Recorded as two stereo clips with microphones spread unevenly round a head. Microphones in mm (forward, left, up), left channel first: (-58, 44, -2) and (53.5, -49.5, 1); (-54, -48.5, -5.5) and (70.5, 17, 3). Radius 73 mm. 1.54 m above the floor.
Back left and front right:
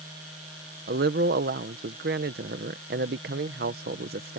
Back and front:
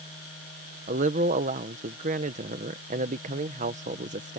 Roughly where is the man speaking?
Ahead.